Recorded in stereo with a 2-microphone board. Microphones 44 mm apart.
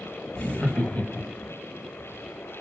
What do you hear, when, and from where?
0.3 s laughter: 30° left (ahead or behind), 1.1 m; by 1.5 s 45° left (ahead or behind), 1.5 m